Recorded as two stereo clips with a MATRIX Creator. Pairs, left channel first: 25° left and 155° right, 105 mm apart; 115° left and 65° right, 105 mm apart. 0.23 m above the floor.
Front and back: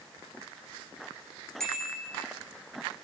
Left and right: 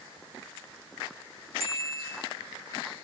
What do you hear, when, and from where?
1.6 s a bicycle bell: 60° right, 9 m